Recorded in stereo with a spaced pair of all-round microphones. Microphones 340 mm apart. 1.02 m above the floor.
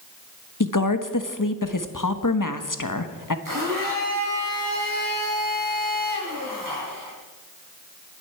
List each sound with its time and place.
0.6 s a woman speaking: 65° left (ahead or behind), 1.3 m
3.5 s a blender: 70° right (ahead or behind), 6.5 m